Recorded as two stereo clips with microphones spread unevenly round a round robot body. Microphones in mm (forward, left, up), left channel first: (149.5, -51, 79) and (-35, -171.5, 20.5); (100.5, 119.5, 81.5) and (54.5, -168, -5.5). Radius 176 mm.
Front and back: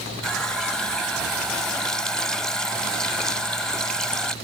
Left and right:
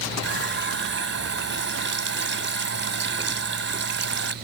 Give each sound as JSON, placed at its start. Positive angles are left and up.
{"t": 0.2, "sound": "a running tap", "azimuth_deg": -60}